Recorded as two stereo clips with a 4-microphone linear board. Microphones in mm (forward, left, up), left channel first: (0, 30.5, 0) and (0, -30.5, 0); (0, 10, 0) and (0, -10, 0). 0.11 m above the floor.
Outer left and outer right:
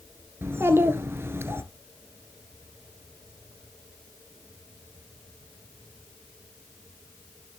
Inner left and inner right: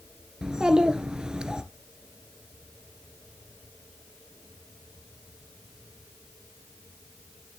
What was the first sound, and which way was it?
A child speaking, 40° right (ahead or behind).